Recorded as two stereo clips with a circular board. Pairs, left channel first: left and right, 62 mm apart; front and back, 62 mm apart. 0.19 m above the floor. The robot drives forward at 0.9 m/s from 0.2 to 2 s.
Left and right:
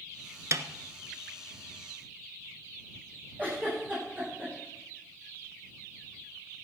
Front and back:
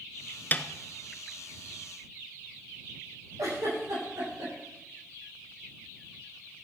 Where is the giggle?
150° right, 8.5 m.